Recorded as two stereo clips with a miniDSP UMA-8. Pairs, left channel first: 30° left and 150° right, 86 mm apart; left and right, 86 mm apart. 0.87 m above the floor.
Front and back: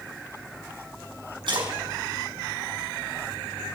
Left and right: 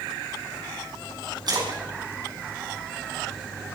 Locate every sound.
1.5 s a splash: 130° right, 6 m